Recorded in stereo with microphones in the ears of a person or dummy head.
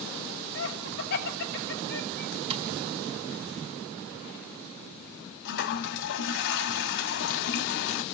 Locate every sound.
0.6 s laughter: 60° left (ahead or behind), 5.5 m
2.5 s tapping: 30° right (ahead or behind), 2.5 m
5.5 s a toilet flushing: 65° left (ahead or behind), 1.3 m